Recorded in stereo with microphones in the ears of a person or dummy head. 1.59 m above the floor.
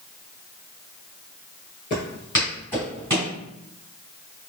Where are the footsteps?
20° left (ahead or behind), 1.6 m; by 3.3 s 15° right (ahead or behind), 1.6 m.